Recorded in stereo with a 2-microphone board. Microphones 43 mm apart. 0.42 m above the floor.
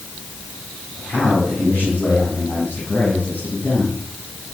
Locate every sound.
1.0 s a man speaking: 30° left (ahead or behind), 6.5 m; by 4.0 s 50° left (ahead or behind), 9.5 m